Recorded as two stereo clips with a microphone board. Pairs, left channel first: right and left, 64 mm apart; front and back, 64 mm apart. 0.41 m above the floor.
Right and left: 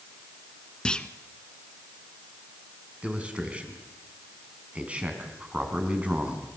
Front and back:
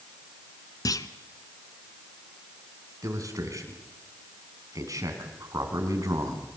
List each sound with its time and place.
0.8 s a clunk: 15° right, 1.0 m
3.0 s a man speaking: 160° left, 4.5 m